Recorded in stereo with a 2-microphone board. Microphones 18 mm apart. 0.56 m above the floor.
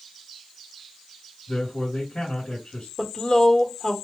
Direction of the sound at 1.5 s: 70° left (ahead or behind).